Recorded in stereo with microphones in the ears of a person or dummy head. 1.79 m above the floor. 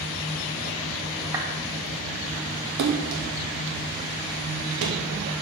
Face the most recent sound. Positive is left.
turn(degrees=-60)  # may be behind; listen again after turning